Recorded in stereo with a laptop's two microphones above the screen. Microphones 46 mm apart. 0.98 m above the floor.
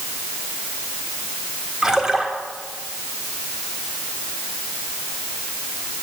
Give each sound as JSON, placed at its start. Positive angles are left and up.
{"t": 1.8, "sound": "a splash", "side_deg": -15, "distance_m": 2.0}